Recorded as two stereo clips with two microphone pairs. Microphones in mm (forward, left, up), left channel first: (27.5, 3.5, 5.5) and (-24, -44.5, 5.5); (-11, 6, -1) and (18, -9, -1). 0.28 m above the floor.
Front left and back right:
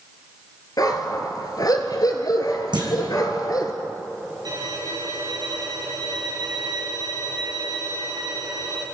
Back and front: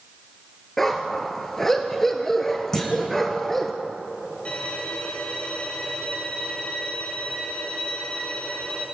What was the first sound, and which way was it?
A dog barking, 75° left.